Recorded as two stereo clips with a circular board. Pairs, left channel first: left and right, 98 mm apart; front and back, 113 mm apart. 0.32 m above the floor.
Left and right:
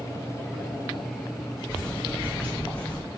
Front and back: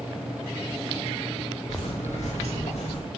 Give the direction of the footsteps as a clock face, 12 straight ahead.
12 o'clock.